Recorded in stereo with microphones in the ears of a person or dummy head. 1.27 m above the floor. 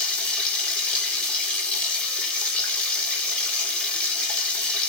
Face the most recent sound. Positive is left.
turn(degrees=5)  # may be behind; listen again after turning